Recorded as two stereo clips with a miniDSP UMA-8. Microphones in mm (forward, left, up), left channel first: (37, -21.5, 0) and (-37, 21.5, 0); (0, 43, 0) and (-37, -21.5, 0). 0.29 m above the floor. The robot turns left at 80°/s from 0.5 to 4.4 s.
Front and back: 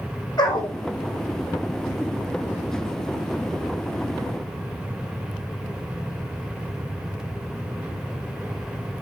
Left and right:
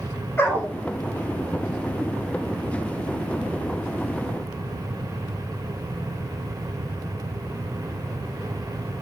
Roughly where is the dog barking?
Ahead.